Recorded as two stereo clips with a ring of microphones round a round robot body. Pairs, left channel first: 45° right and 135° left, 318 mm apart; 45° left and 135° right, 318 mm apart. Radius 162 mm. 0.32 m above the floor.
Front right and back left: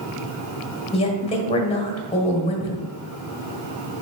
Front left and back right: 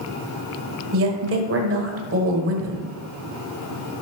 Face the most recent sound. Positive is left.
turn(degrees=-110)